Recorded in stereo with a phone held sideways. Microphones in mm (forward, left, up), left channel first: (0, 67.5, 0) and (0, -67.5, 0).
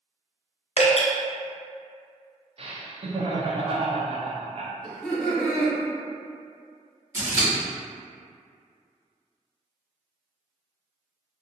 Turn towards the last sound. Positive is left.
turn(degrees=-20)  # may be behind; listen again after turning